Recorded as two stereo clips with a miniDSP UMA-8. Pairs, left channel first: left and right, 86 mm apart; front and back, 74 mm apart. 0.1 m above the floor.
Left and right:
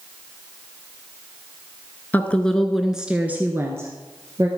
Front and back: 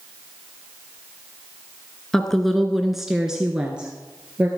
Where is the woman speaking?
70° left, 1.2 m; by 4.5 s 115° right, 1.7 m.